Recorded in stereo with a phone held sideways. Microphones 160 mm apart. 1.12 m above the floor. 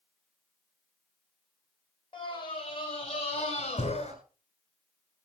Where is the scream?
35° left (ahead or behind), 6 m; by 4.1 s 45° left (ahead or behind), 7.5 m.